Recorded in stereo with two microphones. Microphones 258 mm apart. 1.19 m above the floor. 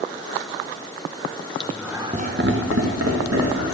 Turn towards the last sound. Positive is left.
turn(degrees=-75)  # may be behind; listen again after turning